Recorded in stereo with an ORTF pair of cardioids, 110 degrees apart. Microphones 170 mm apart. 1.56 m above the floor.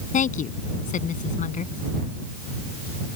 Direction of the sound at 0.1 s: 50° left.